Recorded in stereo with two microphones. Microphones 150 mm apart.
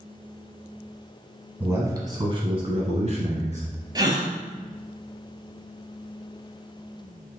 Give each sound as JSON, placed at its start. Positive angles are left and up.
{"t": 1.6, "sound": "a man speaking", "side_deg": -15, "distance_m": 1.2}
{"t": 4.0, "sound": "a gasp", "side_deg": -25, "distance_m": 0.8}